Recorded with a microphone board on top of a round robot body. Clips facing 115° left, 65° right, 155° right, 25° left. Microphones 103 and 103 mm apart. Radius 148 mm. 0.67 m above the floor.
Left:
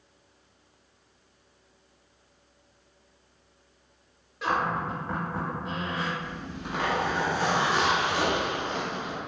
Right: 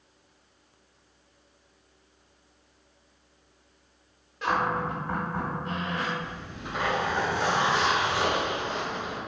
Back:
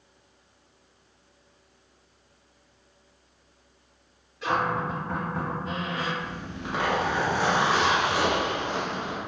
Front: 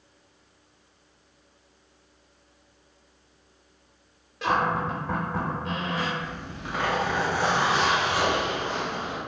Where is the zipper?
135° left, 1.1 m.